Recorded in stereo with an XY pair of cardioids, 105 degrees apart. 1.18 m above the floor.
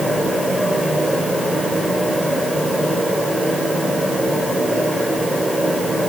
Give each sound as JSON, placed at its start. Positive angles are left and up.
{"t": 0.0, "sound": "a fan", "azimuth_deg": 10, "distance_m": 5.5}